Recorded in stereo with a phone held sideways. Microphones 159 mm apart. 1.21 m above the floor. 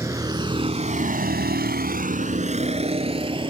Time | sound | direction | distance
0.0 | a vehicle | 20° right (ahead or behind) | ?